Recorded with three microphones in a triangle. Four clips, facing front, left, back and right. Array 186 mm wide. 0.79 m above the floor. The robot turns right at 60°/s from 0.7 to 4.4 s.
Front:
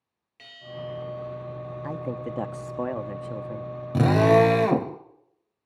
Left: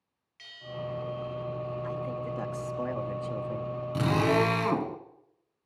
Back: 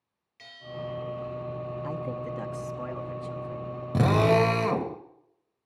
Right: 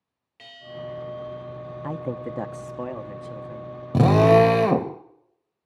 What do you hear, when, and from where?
0.4 s a bell: 60° right, 4 m; by 1.6 s 5° right, 4 m
1.8 s a man speaking: 75° right, 1.2 m; by 3.7 s 40° left, 1.2 m
3.9 s a drill: 95° right, 1.9 m; by 4.9 s 65° right, 1.9 m